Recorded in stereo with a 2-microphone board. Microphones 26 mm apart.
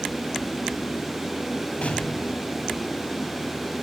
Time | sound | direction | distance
1.8 | an explosion | 60° left (ahead or behind) | 1.7 m